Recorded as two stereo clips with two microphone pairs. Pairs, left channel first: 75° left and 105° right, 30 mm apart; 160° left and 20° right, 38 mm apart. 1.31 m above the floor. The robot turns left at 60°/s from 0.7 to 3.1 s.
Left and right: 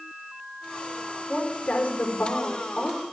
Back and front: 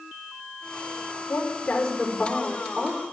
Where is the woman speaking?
125° left, 5 m; by 3.0 s 20° left, 5 m.